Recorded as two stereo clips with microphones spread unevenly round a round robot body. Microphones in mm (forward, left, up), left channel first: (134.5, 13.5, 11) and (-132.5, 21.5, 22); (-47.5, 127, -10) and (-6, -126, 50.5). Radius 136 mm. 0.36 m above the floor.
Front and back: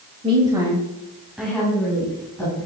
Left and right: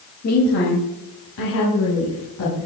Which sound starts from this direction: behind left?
A woman speaking, at 0.2 s.